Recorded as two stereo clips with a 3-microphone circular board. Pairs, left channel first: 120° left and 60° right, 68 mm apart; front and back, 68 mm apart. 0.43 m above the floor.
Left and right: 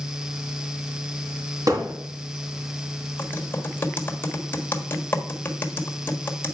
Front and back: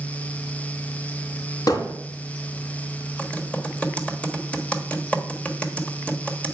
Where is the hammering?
25° right, 3 m.